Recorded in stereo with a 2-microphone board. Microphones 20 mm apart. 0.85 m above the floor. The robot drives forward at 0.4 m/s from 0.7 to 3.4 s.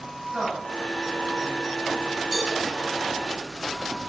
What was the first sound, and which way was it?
A woman speaking, 55° right (ahead or behind).